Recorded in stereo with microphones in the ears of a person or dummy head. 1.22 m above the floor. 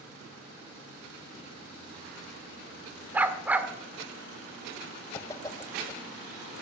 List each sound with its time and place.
3.1 s a dog barking: 5° right (ahead or behind), 1.5 m
5.1 s a whoosh: 15° left (ahead or behind), 1.2 m